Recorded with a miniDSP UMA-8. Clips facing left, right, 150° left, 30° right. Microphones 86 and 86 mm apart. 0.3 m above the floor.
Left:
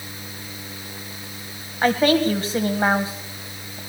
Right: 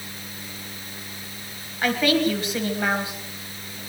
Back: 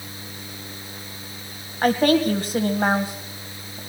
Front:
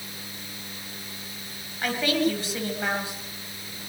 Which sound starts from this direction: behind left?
A woman speaking, at 1.8 s.